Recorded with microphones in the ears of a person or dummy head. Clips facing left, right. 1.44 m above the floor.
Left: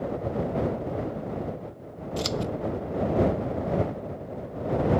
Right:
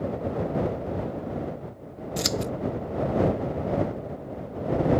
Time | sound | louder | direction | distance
2.2 | scissors | even | 20° right (ahead or behind) | ?